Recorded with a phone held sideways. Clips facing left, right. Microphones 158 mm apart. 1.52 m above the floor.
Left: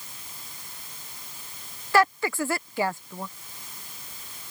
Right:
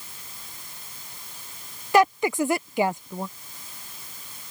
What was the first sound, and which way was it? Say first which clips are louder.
A woman speaking: right 3 dB; 15° right (ahead or behind).